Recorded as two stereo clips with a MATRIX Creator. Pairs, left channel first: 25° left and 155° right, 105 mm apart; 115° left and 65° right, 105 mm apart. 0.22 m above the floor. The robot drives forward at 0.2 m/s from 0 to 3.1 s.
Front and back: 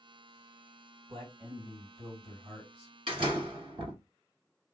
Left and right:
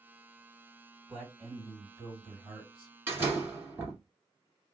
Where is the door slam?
135° right, 1.7 m.